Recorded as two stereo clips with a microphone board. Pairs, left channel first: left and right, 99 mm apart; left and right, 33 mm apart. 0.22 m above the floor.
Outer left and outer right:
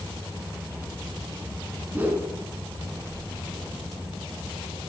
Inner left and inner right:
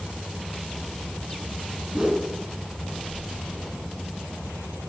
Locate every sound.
1.9 s a whoosh: 20° right (ahead or behind), 1.9 m